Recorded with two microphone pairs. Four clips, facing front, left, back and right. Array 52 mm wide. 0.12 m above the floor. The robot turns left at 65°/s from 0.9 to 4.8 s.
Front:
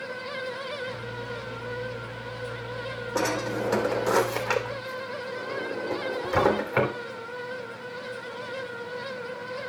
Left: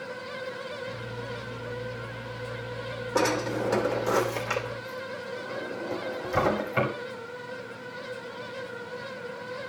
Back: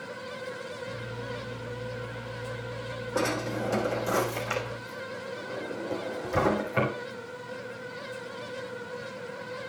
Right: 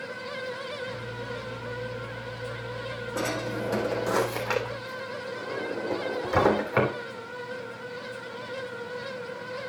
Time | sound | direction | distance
3.1 | a drawer | 55° left | 3 m